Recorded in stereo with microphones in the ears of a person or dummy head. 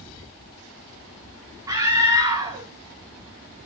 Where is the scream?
20° right (ahead or behind), 4.5 m.